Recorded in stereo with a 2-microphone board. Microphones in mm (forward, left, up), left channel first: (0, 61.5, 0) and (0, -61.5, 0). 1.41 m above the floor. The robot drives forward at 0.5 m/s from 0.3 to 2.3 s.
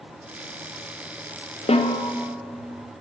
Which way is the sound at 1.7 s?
55° left (ahead or behind).